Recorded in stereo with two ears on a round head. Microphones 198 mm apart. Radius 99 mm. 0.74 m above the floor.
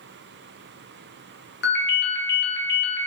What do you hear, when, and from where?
1.6 s a ringtone: 45° left (ahead or behind), 0.7 m